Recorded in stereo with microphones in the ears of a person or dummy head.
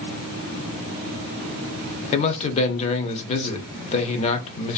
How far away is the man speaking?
About 0.5 m.